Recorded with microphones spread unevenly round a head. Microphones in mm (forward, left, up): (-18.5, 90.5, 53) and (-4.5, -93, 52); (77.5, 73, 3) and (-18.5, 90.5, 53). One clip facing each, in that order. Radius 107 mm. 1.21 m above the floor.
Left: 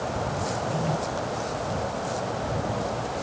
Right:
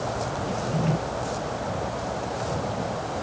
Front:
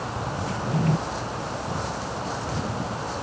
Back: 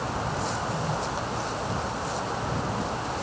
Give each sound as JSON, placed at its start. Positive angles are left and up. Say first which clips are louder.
{"t": 0.5, "sound": "a drawer", "louder": "right 4 dB, front 4 dB", "azimuth_deg": -15}